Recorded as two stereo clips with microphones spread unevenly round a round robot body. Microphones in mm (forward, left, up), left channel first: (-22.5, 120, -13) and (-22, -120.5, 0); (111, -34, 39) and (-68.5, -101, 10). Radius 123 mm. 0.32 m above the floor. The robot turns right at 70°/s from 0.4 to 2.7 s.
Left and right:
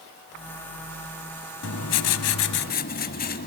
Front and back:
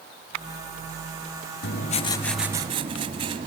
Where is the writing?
65° left, 1.3 m; by 3.5 s 140° left, 1.3 m.